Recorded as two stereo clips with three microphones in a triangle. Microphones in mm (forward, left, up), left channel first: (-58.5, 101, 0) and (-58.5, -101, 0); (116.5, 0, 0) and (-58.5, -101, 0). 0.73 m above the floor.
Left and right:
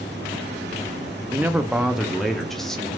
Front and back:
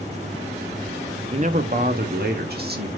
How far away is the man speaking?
About 0.5 m.